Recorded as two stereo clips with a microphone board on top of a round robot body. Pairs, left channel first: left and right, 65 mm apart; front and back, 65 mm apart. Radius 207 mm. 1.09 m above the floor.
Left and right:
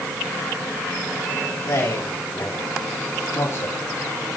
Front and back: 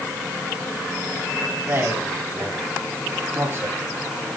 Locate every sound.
1.6 s a man speaking: 125° left, 8.5 m; by 3.8 s 135° left, 7 m